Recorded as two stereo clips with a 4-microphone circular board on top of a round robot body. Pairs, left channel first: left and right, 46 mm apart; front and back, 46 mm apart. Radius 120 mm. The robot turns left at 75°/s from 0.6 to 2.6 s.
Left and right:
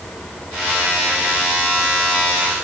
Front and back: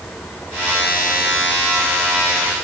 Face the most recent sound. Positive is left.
No sound to turn to.